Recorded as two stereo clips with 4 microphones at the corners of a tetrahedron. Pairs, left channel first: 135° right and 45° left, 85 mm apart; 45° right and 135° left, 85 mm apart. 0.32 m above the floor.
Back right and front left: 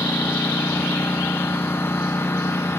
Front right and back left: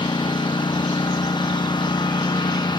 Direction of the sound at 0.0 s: 70° right.